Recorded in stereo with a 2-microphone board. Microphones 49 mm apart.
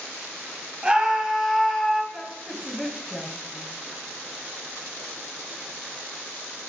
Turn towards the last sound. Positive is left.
turn(degrees=10)  # may be behind; listen again after turning